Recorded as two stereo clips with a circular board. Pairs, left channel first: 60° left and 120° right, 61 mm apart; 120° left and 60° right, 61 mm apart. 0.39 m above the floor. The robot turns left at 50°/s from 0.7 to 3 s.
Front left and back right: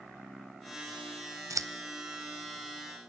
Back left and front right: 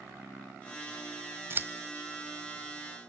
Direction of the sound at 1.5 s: 105° right.